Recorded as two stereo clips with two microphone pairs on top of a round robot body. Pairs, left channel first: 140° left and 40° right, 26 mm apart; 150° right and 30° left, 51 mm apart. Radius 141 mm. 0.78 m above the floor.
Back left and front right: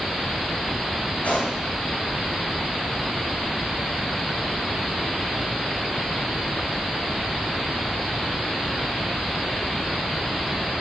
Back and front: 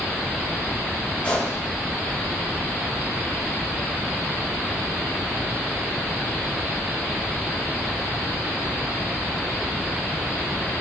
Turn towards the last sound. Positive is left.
turn(degrees=155)